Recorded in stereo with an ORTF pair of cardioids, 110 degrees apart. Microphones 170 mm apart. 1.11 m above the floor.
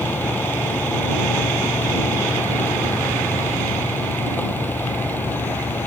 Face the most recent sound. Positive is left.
turn(degrees=10)